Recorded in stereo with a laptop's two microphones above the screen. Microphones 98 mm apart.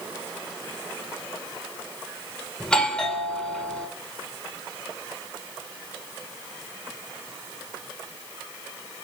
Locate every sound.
2.6 s a doorbell: 10° left (ahead or behind), 1.4 m